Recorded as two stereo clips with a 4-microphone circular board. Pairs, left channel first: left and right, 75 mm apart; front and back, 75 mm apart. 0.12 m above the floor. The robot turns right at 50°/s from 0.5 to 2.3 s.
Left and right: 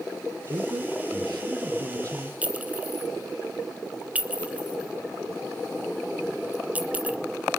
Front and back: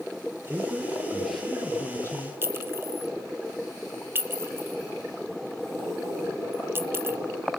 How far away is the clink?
About 0.7 m.